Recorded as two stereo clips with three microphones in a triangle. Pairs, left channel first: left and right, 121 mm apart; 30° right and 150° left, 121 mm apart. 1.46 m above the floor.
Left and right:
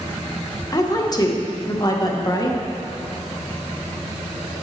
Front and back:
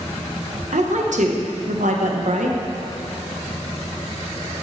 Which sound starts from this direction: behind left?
A woman speaking, at 0.7 s.